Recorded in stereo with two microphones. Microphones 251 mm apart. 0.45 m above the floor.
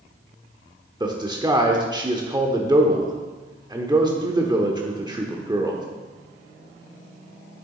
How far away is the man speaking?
About 0.8 m.